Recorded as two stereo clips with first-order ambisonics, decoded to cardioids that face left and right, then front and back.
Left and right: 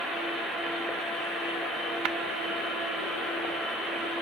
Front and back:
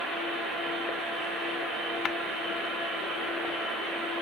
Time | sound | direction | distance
2.0 | tapping | 60° right | ?